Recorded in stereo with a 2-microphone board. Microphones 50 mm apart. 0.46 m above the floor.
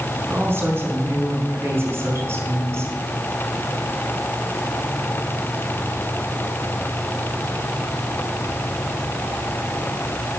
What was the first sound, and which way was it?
A woman speaking, 45° right (ahead or behind).